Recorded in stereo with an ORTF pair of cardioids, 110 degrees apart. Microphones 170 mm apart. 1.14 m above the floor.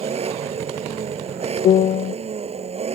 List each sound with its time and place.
0.0 s an engine running: 35° right
1.6 s a piano: 50° left